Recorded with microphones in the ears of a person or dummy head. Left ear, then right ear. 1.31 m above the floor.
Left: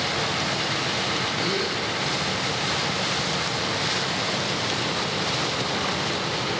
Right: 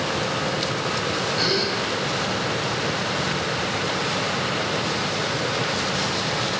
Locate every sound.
1.4 s a gasp: 55° right (ahead or behind), 5 m